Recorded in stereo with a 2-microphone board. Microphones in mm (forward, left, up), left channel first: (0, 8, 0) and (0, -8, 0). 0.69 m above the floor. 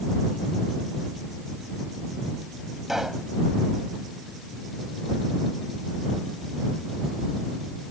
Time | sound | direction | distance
2.9 | a pop | 25° right (ahead or behind) | ?